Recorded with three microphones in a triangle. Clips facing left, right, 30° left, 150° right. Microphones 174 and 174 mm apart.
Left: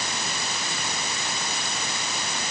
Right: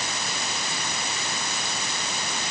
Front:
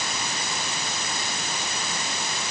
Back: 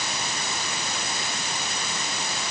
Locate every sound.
Only background noise.